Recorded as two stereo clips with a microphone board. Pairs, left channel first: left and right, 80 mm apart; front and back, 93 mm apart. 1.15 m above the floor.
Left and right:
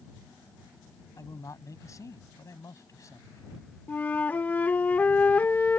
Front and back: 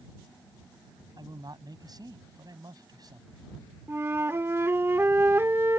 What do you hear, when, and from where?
1.2 s a man speaking: 135° left
3.9 s a flute: 140° left